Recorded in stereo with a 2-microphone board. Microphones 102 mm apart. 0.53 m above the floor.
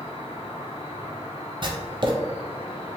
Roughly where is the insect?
Left.